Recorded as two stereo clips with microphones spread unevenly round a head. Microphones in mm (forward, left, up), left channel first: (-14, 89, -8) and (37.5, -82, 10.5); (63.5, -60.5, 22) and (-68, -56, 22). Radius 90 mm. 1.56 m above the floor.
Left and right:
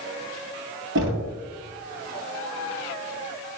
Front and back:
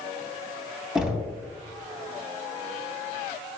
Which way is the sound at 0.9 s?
100° right.